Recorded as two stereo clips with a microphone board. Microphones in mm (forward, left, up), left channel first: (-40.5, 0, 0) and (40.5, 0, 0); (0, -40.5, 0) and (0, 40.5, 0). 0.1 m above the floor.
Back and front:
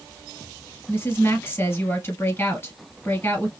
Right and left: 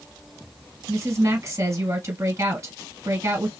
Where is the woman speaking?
125° left, 2.5 m.